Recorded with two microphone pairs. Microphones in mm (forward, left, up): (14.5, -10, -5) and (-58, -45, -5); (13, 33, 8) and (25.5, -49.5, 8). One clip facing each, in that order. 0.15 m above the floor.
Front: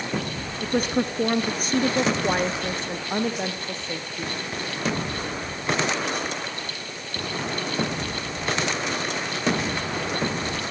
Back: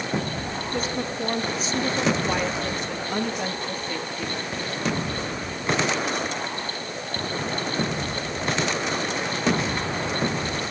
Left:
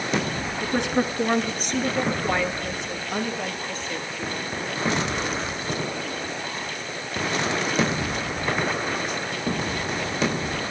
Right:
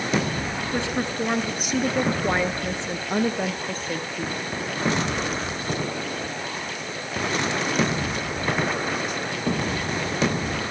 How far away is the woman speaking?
About 2.5 m.